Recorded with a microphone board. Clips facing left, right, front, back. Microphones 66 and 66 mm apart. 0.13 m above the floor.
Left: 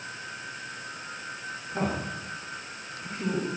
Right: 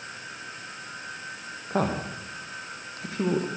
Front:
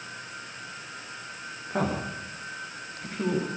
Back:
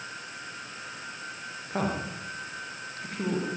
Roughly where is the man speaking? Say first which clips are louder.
Right 4 dB, front 2 dB; right.